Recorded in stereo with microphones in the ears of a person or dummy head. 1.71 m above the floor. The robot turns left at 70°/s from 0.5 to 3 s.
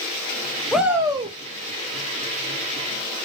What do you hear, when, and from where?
0.7 s a shout: straight ahead, 0.9 m; by 1.4 s 45° right, 0.9 m